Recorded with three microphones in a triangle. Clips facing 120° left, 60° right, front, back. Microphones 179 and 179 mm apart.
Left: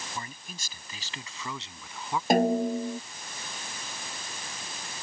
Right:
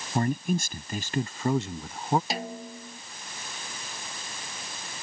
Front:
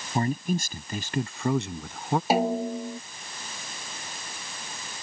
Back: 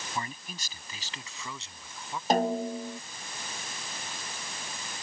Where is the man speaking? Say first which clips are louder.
Right 16 dB, front 14 dB; 40° right; by 2.2 s 20° right.